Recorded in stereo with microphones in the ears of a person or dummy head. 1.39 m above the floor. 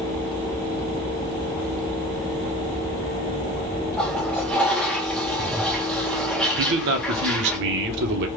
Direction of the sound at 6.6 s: 60° right (ahead or behind).